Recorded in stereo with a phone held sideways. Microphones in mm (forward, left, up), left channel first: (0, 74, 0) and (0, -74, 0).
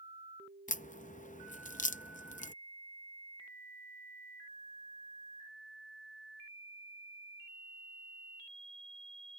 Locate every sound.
0.7 s a crack: 60° left (ahead or behind)